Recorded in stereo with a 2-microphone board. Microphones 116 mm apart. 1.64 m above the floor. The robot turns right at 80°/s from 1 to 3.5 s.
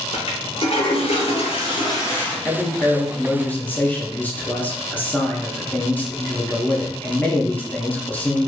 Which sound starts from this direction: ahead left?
A toilet flushing, at 0.1 s.